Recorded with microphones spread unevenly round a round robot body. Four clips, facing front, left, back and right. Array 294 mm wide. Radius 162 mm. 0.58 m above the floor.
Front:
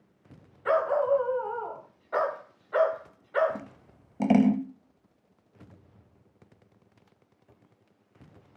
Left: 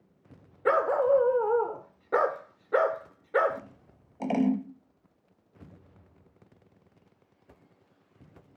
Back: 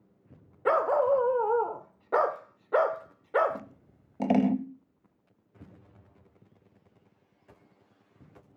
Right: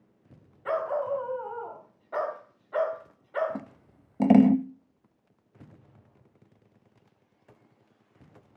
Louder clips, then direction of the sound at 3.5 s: Right 4 dB, front 1 dB; 75° right.